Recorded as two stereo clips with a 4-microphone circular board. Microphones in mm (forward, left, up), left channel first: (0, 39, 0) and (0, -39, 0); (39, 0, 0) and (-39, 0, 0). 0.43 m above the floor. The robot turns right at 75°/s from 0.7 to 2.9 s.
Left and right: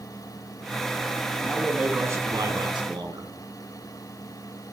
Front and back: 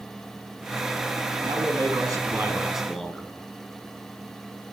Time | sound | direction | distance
1.4 | a man speaking | 165° left | 3 m